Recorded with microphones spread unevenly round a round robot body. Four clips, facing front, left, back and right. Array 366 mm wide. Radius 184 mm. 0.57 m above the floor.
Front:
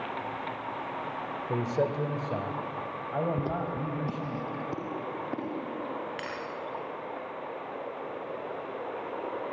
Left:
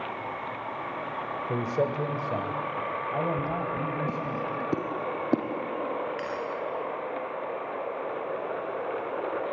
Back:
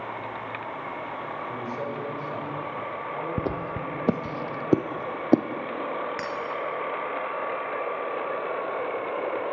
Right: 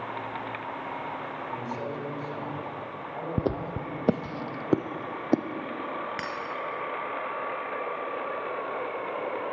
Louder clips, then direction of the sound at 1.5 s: Left 8 dB, front 7 dB; 55° left.